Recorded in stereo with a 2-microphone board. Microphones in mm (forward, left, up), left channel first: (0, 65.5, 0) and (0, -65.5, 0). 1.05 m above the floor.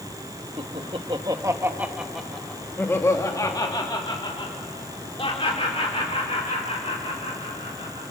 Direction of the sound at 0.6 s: 50° right (ahead or behind).